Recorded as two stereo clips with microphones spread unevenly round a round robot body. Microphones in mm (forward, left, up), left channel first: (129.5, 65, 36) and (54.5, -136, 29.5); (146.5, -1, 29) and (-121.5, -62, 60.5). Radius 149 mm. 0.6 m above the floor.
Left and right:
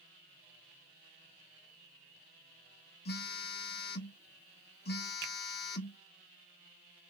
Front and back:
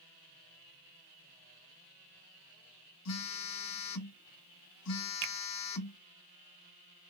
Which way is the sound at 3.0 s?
25° left.